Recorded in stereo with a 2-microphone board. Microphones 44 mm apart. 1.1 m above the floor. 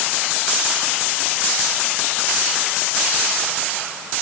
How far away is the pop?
No pop in this recording.